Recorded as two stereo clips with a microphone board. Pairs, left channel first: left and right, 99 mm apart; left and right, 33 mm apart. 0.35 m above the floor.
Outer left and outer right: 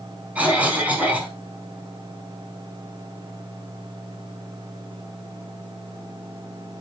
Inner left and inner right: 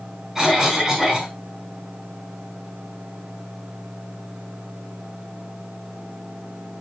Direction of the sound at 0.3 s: 15° right (ahead or behind).